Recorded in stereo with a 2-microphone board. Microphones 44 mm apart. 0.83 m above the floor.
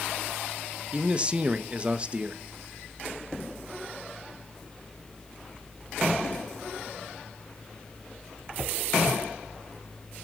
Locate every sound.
0.9 s a man speaking: 30° right (ahead or behind), 0.8 m